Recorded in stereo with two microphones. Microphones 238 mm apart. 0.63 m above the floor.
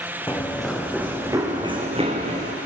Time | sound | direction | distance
0.3 | running footsteps | 10° left (ahead or behind) | 2.5 m